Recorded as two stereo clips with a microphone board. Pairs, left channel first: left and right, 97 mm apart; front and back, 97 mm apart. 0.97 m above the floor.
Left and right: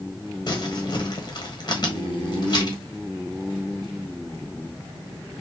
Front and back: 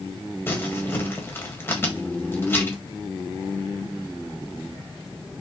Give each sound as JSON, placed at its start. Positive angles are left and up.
{"t": 0.5, "sound": "crumpling", "azimuth_deg": 60, "distance_m": 1.4}